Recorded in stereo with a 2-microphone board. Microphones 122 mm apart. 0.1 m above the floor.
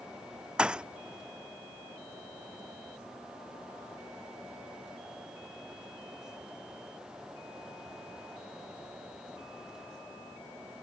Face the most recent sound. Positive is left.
turn(degrees=-5)  # may be behind; listen again after turning